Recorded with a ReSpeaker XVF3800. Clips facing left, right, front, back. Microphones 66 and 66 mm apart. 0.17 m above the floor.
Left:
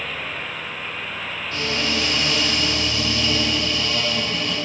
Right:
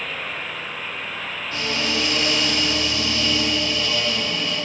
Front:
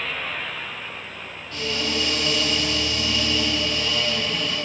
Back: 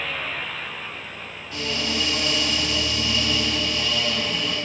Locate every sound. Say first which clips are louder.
1.5 s a cupboard door: even, front 1 dB; 115° right, 1.9 m